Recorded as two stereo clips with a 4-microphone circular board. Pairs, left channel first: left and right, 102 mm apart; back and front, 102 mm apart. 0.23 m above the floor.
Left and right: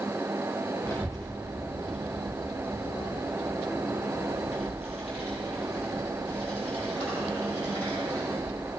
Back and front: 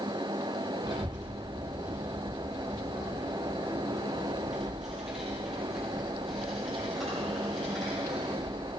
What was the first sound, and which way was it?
A child speaking, 30° left.